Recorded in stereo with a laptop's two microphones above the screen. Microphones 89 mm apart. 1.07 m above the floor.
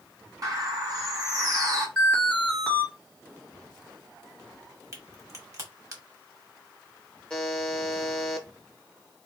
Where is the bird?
40° right (ahead or behind), 1.3 m.